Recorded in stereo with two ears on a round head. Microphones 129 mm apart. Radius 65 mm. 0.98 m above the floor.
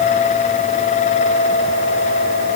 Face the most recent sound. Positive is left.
No sound to turn to.